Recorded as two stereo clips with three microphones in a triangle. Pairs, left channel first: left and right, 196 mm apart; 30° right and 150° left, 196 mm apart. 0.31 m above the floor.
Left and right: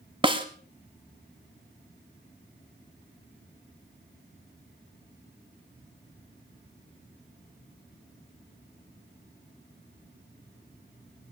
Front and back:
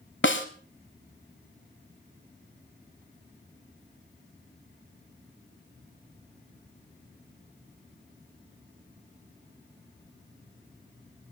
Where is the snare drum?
25° right, 1.0 m.